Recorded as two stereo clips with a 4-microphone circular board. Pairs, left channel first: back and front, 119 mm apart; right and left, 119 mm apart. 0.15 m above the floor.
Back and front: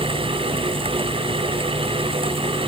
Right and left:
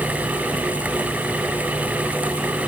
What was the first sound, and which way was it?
Only background noise.